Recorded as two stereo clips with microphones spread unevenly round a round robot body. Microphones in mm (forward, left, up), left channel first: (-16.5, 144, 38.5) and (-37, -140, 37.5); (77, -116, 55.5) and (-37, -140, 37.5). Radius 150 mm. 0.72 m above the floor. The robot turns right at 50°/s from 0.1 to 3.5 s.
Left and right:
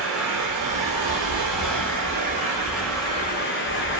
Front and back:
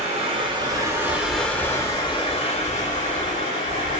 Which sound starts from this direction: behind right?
Running water, at 0.0 s.